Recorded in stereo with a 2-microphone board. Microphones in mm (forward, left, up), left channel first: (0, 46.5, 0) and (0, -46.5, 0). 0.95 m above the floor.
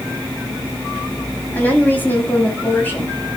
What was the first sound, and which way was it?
A woman speaking, 20° left (ahead or behind).